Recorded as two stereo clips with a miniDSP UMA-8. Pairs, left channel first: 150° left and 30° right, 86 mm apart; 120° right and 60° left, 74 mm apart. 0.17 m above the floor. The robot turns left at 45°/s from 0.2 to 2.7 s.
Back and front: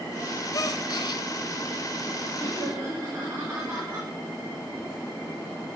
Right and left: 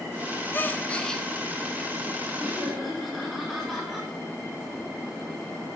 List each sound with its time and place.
0.5 s a gasp: 175° right, 0.5 m; by 1.2 s 155° left, 0.5 m
2.4 s laughter: 15° right, 2 m; by 4.1 s 30° right, 2 m